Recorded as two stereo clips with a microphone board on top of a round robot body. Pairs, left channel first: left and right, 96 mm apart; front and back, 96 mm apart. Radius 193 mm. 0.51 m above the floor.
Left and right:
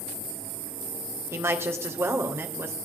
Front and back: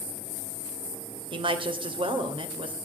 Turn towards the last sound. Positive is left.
turn(degrees=-155)